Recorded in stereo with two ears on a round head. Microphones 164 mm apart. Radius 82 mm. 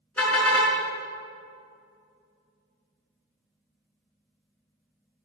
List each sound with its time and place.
0.2 s a car horn: 5° left (ahead or behind), 5.5 m